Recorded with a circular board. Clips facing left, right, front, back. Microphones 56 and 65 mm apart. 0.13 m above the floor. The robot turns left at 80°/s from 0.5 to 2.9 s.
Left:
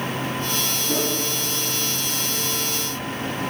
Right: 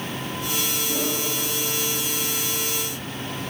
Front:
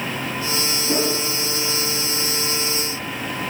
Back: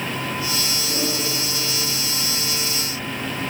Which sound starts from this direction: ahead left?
A whoosh, at 0.9 s.